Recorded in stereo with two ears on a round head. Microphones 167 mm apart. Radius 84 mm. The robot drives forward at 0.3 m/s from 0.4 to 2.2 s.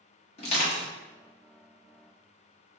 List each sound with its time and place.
0.4 s crushing: 35° left (ahead or behind), 1.3 m